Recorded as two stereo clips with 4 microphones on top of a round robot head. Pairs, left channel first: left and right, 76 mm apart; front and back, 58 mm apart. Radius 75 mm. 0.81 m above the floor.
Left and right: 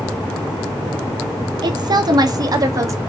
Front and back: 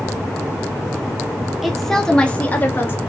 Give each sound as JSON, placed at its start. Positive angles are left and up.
{"t": 1.6, "sound": "a woman speaking", "azimuth_deg": -90, "distance_m": 2.0}